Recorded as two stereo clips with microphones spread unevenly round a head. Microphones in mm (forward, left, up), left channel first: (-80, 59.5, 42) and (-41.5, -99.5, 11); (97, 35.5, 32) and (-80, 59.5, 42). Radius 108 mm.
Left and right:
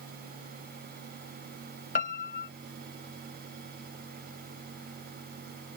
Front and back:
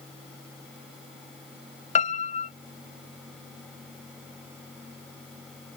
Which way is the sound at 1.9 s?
45° left.